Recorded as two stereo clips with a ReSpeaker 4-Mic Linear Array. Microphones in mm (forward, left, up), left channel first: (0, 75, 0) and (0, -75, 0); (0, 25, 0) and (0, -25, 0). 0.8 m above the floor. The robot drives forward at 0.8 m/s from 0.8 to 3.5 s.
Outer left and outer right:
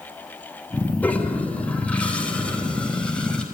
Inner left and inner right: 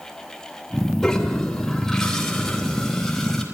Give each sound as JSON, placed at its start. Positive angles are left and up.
{"t": 1.0, "sound": "a toilet flushing", "side_deg": 10, "distance_m": 3.0}